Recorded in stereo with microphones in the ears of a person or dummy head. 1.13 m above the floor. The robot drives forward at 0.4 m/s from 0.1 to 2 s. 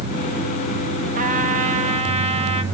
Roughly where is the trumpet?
Right.